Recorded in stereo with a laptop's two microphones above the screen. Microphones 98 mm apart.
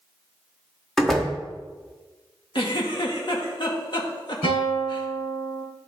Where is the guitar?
65° left (ahead or behind), 3 m.